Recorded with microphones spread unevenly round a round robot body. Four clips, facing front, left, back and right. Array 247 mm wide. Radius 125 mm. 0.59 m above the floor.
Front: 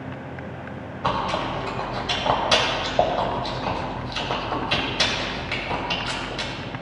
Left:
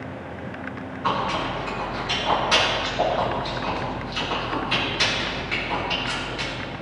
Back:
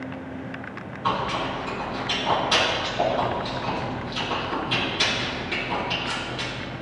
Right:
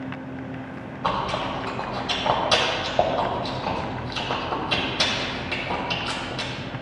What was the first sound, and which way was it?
Chewing, 25° right.